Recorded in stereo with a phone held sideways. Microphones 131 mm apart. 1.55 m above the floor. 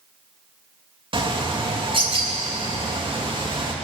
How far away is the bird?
About 3 m.